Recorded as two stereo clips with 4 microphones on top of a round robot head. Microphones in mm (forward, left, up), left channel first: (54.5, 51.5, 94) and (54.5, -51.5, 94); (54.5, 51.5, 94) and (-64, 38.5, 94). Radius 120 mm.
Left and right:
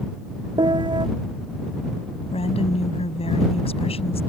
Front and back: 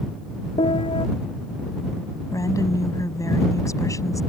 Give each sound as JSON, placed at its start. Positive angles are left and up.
{"t": 0.6, "sound": "a piano", "azimuth_deg": -50}
{"t": 2.3, "sound": "a woman speaking", "azimuth_deg": 70}